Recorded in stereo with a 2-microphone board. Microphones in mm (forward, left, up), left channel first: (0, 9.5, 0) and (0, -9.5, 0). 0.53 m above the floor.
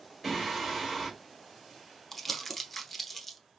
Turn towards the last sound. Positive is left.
turn(degrees=10)  # may be behind; listen again after turning